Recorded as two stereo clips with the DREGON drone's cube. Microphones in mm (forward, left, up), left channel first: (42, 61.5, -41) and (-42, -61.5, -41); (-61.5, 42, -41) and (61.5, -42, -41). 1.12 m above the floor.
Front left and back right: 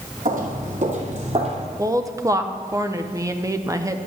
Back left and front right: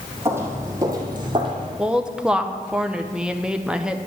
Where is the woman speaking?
110° right, 0.6 m.